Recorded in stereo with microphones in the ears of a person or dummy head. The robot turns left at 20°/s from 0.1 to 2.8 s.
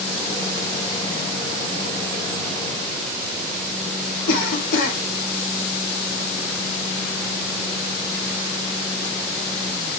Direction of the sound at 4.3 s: 50° left (ahead or behind).